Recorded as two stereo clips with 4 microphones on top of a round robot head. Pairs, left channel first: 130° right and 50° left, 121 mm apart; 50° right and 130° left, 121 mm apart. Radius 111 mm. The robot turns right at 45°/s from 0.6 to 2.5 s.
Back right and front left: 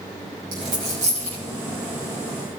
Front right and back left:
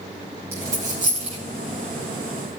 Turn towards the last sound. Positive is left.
turn(degrees=145)